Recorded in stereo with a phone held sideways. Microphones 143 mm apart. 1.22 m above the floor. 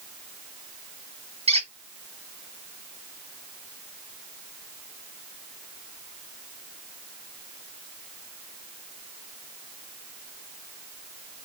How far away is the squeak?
About 0.8 m.